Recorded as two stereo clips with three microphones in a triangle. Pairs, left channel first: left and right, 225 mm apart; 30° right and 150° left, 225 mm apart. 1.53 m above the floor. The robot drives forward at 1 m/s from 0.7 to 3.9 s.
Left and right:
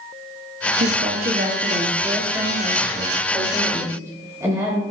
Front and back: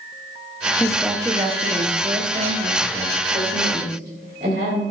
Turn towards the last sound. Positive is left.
turn(degrees=-165)